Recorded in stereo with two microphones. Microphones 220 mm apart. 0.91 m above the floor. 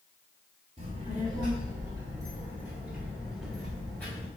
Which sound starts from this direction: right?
A child speaking, at 0.8 s.